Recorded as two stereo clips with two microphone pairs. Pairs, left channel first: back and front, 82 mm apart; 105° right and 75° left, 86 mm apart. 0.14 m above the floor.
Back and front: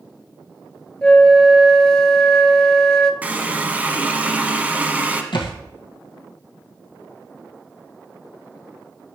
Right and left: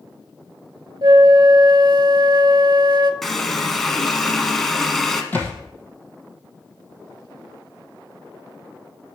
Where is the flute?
100° left, 0.7 m.